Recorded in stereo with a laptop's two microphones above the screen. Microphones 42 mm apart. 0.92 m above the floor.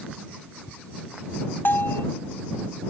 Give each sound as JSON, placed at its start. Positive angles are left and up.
{"t": 1.6, "sound": "a bell", "side_deg": 65}